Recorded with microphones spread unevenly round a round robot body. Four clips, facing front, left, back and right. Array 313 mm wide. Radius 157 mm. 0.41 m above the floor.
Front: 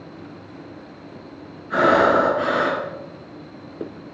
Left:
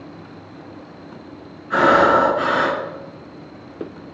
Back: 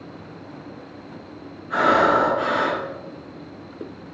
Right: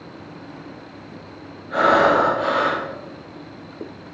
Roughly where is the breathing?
Ahead left.